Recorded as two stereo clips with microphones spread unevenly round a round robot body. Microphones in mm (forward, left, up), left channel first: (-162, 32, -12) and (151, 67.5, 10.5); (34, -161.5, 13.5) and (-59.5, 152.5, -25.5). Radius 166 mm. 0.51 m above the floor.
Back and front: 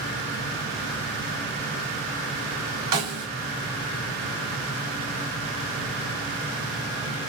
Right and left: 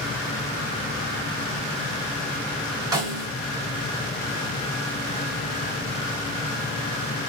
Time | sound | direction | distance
2.9 | a snare drum | 30° left | 1.4 m